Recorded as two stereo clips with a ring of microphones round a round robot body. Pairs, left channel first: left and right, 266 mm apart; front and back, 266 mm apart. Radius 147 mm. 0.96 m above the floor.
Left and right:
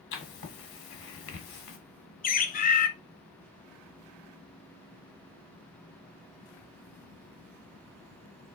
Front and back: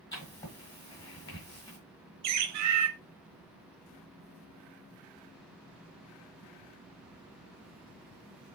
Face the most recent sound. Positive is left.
turn(degrees=150)